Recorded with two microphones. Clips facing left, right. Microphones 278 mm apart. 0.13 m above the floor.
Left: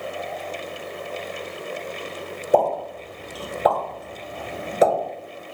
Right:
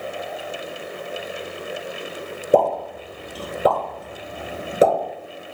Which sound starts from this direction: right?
A pop, at 2.5 s.